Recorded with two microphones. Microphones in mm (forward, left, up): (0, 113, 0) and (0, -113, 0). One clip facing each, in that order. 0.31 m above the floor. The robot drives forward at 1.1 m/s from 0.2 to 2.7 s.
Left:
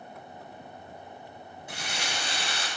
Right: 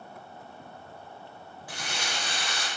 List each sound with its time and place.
1.7 s crumpling: 20° left (ahead or behind), 4.5 m; by 2.7 s 25° left (ahead or behind), 4 m